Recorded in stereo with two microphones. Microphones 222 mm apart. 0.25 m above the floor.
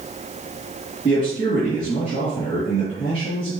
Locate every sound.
1.1 s a man speaking: 25° left (ahead or behind), 3.5 m